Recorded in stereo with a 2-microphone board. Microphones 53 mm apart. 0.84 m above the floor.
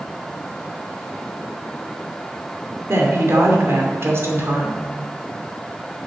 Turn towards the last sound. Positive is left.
turn(degrees=-50)  # may be behind; listen again after turning